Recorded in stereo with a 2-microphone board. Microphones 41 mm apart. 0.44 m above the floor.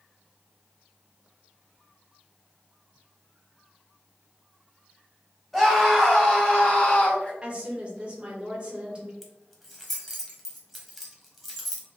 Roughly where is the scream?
Centre.